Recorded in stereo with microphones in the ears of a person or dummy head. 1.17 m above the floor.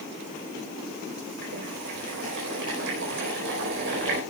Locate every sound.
1.4 s boiling: 60° right (ahead or behind), 4 m